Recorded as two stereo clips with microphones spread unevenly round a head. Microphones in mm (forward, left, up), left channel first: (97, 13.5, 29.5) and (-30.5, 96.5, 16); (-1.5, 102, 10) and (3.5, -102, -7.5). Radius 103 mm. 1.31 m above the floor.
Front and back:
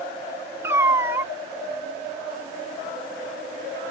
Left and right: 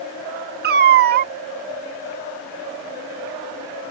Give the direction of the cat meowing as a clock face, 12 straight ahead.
4 o'clock.